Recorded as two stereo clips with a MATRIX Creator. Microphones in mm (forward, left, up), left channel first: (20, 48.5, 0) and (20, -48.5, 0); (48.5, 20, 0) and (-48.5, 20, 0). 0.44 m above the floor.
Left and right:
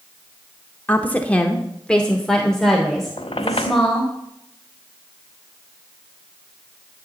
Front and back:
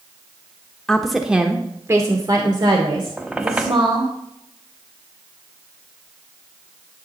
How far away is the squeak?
About 0.8 m.